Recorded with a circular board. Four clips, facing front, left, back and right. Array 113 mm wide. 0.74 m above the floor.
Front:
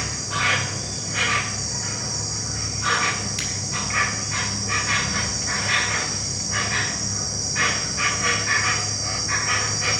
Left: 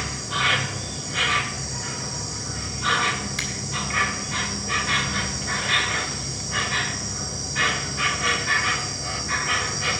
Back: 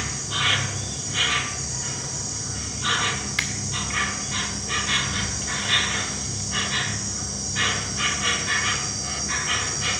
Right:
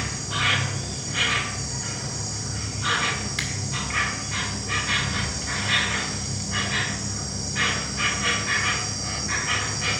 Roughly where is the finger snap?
Behind.